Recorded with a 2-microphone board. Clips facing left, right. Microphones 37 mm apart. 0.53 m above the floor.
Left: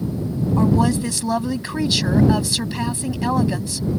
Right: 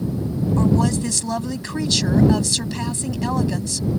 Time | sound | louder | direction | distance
0.6 | a woman speaking | left 2 dB | 15° left (ahead or behind) | ?